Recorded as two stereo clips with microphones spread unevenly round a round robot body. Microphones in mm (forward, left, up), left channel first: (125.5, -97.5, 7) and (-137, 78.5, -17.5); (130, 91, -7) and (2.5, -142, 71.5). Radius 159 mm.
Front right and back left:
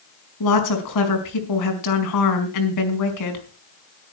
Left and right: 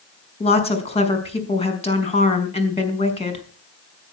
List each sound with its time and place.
0.4 s a woman speaking: straight ahead, 4.5 m